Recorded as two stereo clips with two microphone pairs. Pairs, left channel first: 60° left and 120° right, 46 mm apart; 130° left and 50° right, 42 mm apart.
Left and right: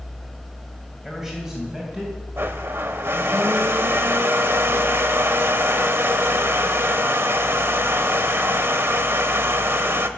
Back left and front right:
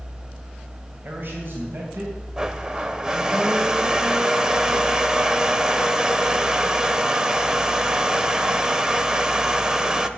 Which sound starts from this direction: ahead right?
A man speaking, at 1.0 s.